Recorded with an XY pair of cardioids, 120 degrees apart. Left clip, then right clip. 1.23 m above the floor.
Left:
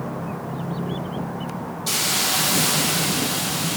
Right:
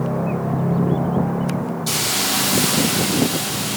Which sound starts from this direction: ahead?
A hiss, at 1.9 s.